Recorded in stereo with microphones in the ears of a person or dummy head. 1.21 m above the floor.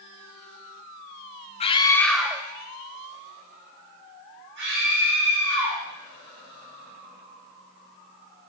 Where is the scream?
25° left (ahead or behind), 0.6 m; by 5.8 s 65° right (ahead or behind), 2 m.